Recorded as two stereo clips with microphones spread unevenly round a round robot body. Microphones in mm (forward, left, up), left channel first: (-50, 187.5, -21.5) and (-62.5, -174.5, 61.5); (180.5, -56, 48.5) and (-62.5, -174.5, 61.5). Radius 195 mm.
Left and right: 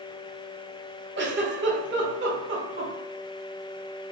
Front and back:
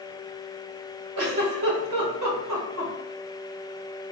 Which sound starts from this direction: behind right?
A giggle, at 1.2 s.